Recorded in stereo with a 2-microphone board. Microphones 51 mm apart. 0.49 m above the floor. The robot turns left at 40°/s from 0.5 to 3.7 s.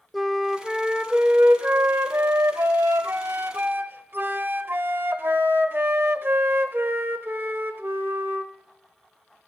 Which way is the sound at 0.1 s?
Straight ahead.